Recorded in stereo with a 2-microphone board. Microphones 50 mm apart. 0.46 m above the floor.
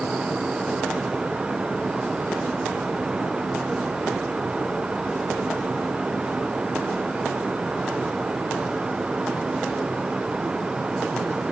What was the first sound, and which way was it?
Only background noise.